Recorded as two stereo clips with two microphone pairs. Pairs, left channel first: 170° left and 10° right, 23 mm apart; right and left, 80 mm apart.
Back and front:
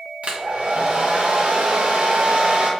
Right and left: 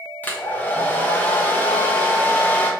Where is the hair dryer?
25° right, 0.5 m.